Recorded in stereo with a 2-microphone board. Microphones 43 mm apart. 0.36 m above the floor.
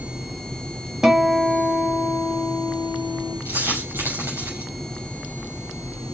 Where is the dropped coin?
75° right (ahead or behind), 5.5 m.